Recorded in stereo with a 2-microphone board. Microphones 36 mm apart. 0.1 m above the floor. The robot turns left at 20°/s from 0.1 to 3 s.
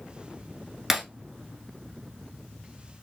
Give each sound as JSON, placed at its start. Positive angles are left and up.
{"t": 0.9, "sound": "breaking glass", "side_deg": -10, "distance_m": 0.8}